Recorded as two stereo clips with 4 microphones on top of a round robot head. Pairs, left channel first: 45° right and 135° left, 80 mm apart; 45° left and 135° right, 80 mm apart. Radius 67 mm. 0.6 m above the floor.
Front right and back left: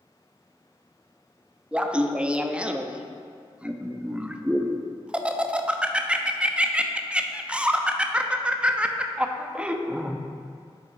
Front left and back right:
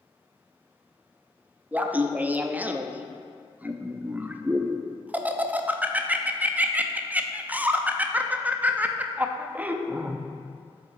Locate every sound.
1.7 s laughter: 170° right, 0.5 m